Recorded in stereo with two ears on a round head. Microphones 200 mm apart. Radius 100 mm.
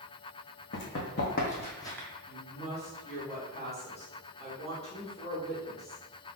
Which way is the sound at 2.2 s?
30° left (ahead or behind).